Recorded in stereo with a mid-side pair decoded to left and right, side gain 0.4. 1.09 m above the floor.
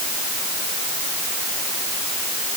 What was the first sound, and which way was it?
Only background noise.